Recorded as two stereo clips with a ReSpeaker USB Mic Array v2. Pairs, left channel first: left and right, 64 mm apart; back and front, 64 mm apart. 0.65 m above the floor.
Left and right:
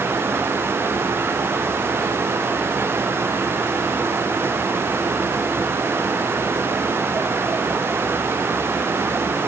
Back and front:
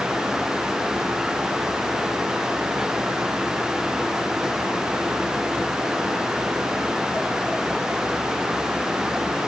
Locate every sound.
Only background noise.